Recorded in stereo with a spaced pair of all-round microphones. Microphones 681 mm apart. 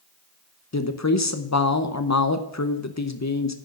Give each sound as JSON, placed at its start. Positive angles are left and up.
{"t": 0.7, "sound": "a woman speaking", "side_deg": 25, "distance_m": 0.7}